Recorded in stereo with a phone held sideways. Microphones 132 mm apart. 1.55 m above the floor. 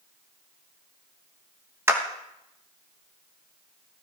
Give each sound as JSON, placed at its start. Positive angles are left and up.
{"t": 1.9, "sound": "a clap", "side_deg": -20, "distance_m": 1.1}